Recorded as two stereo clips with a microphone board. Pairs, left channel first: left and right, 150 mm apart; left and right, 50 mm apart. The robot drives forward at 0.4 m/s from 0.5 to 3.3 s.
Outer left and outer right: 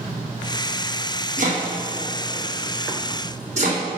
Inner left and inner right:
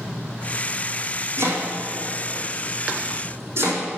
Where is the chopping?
60° right (ahead or behind), 4 m; by 3.8 s 50° right (ahead or behind), 4.5 m.